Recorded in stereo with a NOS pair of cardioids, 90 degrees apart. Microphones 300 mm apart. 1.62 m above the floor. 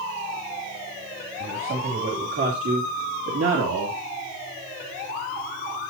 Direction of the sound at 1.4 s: 40° right.